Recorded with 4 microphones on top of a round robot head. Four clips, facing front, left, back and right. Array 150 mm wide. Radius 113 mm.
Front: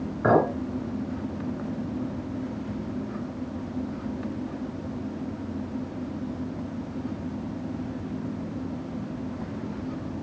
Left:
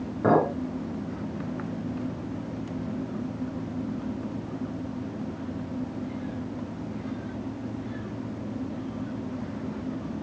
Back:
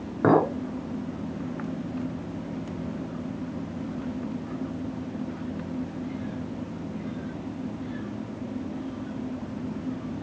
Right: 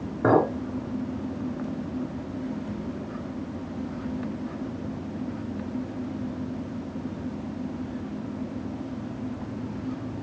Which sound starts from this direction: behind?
A clink, at 0.2 s.